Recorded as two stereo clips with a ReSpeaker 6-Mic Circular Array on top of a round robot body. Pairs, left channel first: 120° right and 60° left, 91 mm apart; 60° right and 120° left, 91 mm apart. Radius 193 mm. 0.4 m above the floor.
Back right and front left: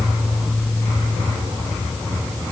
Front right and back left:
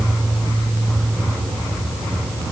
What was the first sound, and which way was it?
Only background noise.